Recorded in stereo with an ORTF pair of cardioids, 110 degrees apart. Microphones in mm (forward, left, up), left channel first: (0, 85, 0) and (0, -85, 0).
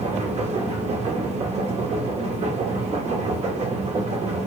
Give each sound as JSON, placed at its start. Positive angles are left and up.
{"t": 0.0, "sound": "a machine running", "azimuth_deg": -40, "distance_m": 0.9}